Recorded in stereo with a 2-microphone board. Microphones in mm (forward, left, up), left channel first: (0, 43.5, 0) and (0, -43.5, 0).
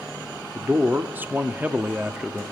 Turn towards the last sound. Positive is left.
turn(degrees=-10)  # may be behind; listen again after turning